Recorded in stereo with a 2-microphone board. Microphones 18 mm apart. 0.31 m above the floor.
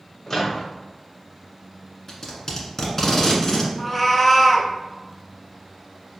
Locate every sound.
0.3 s a microwave: 30° left (ahead or behind), 1.0 m
2.1 s tape being pulled: 35° left (ahead or behind), 1.2 m
3.8 s a cat meowing: 5° left (ahead or behind), 0.7 m